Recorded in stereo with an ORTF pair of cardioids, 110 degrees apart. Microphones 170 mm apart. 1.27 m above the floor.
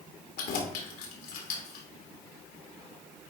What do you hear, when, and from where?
0.4 s keys jangling: 70° left, 2.0 m